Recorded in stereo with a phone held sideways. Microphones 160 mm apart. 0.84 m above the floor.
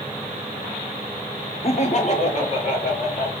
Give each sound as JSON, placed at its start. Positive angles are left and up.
{"t": 1.6, "sound": "laughter", "side_deg": 40, "distance_m": 0.6}